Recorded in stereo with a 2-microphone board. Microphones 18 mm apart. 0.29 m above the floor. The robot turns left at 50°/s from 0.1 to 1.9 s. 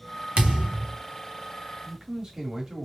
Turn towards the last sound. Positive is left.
turn(degrees=-35)  # may be behind; listen again after turning